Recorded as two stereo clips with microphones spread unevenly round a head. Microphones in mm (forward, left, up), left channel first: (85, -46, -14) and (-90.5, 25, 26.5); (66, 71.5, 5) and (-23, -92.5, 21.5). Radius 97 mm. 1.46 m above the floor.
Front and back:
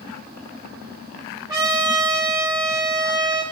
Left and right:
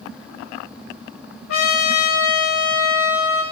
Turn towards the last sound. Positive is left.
turn(degrees=80)